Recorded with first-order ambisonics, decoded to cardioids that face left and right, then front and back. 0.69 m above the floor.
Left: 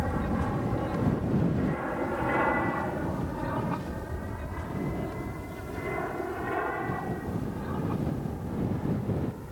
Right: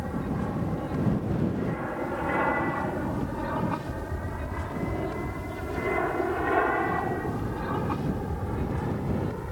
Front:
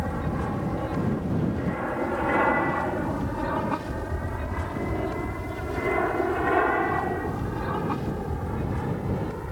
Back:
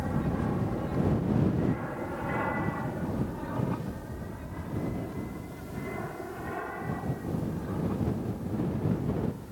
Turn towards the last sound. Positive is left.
turn(degrees=-35)